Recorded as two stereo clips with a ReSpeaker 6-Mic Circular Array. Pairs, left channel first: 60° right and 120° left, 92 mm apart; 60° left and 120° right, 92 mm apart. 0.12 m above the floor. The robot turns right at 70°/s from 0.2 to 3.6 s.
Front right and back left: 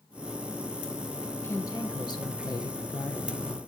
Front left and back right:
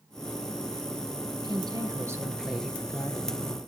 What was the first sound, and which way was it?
A woman speaking, 120° right.